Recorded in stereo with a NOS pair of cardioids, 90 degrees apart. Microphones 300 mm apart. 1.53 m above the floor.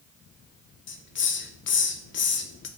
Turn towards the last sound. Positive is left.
turn(degrees=40)